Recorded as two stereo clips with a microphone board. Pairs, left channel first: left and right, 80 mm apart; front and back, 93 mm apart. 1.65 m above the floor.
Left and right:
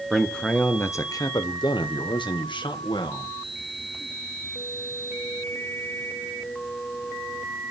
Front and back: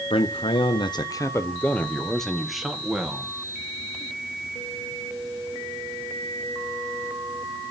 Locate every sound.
0.1 s a man speaking: straight ahead, 0.9 m; by 3.3 s 100° left, 1.9 m